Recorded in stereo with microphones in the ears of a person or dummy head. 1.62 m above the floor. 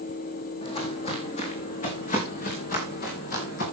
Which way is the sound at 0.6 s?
25° left (ahead or behind).